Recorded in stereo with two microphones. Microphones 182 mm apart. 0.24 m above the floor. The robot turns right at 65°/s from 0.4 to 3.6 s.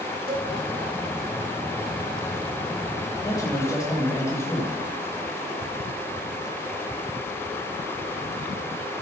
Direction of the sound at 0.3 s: 30° right (ahead or behind).